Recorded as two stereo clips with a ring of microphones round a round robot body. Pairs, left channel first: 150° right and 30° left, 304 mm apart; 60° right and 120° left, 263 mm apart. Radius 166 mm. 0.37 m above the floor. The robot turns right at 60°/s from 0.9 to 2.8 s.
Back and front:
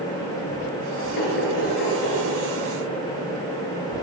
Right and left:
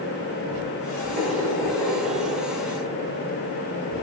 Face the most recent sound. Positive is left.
turn(degrees=-75)